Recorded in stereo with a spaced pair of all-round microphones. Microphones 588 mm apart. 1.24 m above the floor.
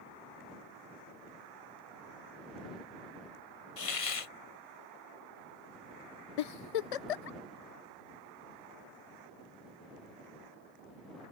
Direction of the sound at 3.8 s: 65° left (ahead or behind).